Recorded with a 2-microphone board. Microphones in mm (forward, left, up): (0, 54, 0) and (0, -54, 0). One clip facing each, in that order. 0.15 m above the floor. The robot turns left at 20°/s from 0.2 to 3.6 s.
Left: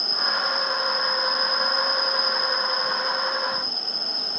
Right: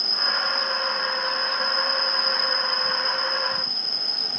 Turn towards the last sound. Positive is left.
turn(degrees=115)